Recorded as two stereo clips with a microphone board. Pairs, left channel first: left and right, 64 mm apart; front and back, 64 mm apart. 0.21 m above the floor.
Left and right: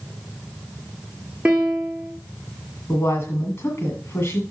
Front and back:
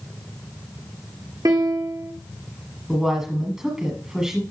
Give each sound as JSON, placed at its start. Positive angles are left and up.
{"t": 1.4, "sound": "a piano", "azimuth_deg": -165, "distance_m": 2.0}
{"t": 2.9, "sound": "a woman speaking", "azimuth_deg": 105, "distance_m": 1.8}